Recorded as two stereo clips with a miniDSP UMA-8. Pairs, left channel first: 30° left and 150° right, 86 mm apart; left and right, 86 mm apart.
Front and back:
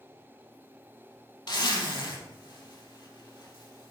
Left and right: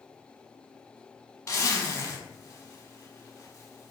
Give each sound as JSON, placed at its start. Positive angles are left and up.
{"t": 1.5, "sound": "a zipper", "azimuth_deg": 40, "distance_m": 0.8}